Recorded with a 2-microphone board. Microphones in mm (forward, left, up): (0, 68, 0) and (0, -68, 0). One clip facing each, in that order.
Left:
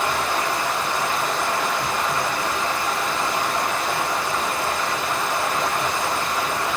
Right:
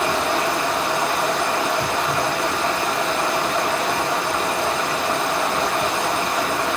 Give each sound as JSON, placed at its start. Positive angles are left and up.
{"t": 0.0, "sound": "running water", "side_deg": -75, "distance_m": 1.0}